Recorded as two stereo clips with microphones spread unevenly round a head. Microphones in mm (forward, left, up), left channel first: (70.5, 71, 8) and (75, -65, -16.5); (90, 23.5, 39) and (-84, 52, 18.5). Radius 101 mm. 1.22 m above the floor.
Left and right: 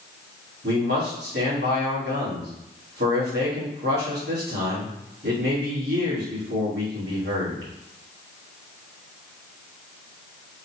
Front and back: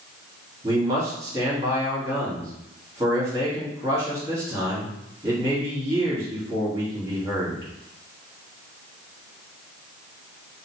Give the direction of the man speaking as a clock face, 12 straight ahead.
4 o'clock.